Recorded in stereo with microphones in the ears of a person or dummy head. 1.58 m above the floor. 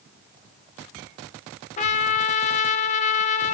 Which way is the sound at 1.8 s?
35° left (ahead or behind).